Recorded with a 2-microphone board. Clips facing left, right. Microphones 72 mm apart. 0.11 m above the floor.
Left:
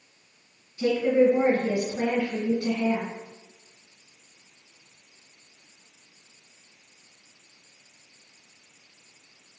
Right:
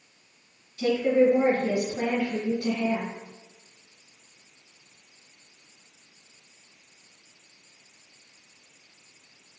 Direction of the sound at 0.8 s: 20° left (ahead or behind).